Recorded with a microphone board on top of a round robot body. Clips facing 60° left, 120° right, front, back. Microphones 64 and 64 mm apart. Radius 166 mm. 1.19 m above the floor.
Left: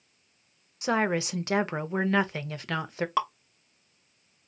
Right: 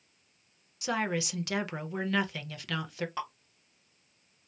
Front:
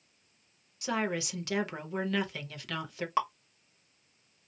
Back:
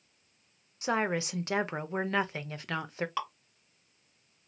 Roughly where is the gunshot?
No gunshot in this recording.